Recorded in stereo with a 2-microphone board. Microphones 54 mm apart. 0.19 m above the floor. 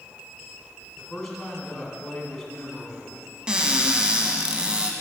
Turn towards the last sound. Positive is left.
turn(degrees=-20)  # may be behind; listen again after turning